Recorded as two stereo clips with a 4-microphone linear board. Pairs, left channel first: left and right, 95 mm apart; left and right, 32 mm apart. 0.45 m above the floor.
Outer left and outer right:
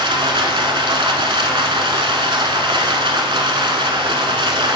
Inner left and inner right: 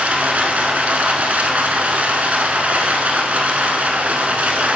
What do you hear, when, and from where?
0.0 s running water: 70° right (ahead or behind), 0.8 m